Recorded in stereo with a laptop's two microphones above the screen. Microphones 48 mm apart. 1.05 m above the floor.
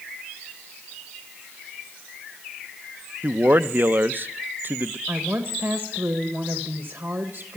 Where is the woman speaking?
50° right (ahead or behind), 1.3 m.